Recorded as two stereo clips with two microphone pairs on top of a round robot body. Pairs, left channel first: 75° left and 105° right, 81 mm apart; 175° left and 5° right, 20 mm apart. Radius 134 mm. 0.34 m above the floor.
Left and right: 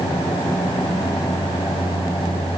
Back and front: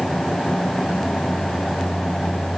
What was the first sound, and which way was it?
Only background noise.